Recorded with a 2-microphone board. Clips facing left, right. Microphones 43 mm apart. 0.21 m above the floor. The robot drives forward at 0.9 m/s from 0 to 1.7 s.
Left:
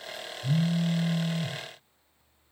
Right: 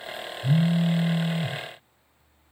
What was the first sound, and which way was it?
A phone buzzing, 15° right (ahead or behind).